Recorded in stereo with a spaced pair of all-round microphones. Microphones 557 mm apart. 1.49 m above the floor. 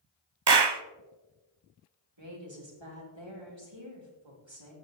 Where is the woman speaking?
50° right (ahead or behind), 3.5 m.